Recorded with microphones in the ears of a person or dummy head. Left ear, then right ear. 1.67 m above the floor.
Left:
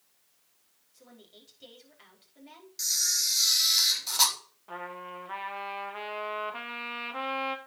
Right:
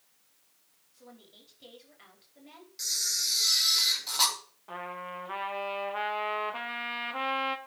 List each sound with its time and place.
0.9 s a woman speaking: 10° left (ahead or behind), 5 m
2.8 s a camera shutter: 5° left (ahead or behind), 3 m
4.7 s a trumpet: centre (ahead or behind), 1.6 m